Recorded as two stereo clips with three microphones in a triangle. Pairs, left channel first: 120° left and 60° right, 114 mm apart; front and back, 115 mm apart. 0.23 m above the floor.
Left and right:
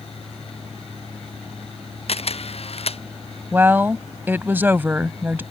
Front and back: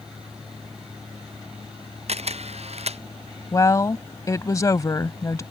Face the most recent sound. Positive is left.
turn(degrees=-10)